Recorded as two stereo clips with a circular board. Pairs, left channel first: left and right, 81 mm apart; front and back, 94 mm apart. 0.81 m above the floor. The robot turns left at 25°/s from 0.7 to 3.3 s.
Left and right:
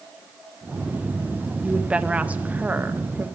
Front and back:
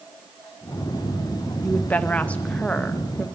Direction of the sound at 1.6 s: 30° right.